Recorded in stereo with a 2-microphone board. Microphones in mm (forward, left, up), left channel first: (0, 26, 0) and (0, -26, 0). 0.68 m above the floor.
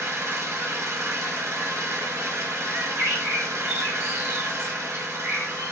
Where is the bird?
50° right (ahead or behind), 1.7 m.